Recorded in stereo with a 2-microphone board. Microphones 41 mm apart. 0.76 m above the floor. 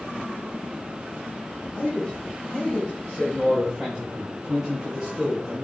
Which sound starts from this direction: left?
A man speaking, at 1.7 s.